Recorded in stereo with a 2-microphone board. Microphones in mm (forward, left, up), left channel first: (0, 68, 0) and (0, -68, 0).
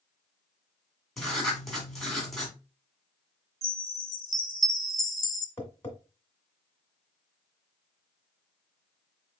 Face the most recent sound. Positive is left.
turn(degrees=15)  # may be behind; listen again after turning